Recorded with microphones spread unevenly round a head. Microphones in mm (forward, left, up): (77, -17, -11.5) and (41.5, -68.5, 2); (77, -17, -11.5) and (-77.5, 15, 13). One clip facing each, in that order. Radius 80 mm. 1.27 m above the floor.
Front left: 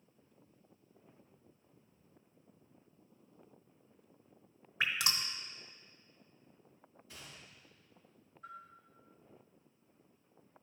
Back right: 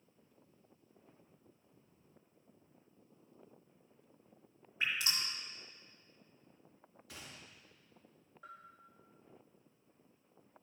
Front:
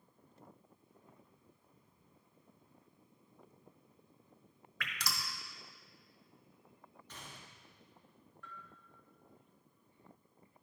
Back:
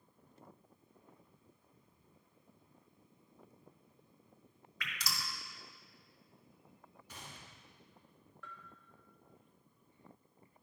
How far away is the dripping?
About 1.0 m.